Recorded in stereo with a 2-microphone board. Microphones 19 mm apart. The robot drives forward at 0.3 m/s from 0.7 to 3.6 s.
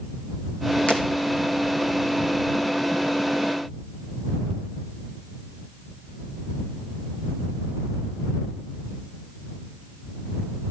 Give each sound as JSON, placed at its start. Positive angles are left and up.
{"t": 0.9, "sound": "breaking glass", "side_deg": 75, "distance_m": 2.0}